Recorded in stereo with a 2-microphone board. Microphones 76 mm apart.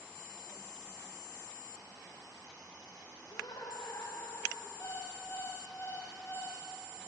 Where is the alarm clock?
35° left (ahead or behind), 8 m.